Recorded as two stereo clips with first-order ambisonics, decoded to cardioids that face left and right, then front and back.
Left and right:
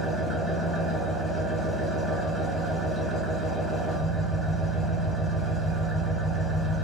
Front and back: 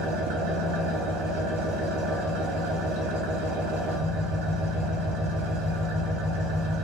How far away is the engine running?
About 0.8 m.